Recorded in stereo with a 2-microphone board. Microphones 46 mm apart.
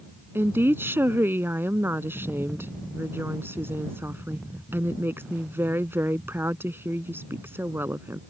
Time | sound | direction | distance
0.3 | a woman speaking | 60° right (ahead or behind) | ?